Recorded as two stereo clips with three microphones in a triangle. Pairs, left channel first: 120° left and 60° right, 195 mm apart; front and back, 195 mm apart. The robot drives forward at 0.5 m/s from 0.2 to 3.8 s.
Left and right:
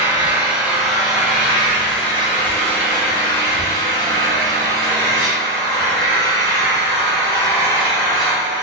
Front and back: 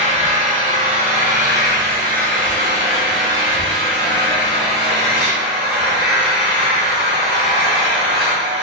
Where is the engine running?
140° right, 1.2 m; by 8.6 s 165° right, 2.5 m.